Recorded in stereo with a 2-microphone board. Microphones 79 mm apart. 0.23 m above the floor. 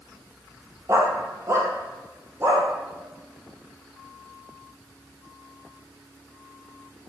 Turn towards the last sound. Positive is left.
turn(degrees=-30)  # may be behind; listen again after turning